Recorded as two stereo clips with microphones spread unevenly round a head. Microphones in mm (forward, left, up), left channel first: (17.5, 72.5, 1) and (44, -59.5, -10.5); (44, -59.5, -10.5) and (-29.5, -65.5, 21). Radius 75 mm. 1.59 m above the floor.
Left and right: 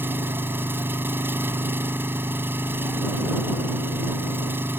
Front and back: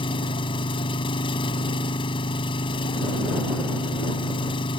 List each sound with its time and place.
0.0 s an engine running: straight ahead